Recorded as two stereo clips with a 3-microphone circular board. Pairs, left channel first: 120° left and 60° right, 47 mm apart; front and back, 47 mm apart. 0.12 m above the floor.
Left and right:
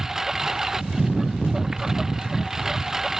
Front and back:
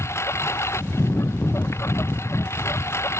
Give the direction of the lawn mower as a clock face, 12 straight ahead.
11 o'clock.